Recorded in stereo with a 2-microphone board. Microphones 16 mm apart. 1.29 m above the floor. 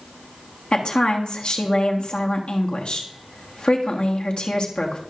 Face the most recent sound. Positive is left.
turn(degrees=80)